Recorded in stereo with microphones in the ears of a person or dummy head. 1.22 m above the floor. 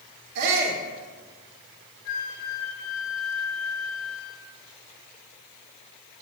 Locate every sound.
0.3 s a shout: 55° right (ahead or behind), 3.5 m
2.0 s a flute: 75° left (ahead or behind), 3 m